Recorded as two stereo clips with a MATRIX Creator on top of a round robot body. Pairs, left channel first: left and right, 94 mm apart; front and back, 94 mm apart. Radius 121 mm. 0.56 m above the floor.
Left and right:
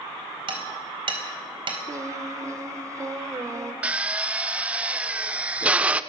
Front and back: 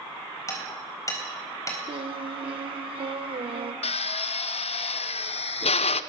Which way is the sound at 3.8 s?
15° right.